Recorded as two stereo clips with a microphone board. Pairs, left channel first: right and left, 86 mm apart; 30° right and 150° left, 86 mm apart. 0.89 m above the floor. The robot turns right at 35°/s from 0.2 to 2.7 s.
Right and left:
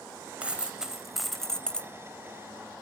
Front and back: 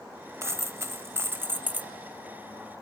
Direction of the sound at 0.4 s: 155° left.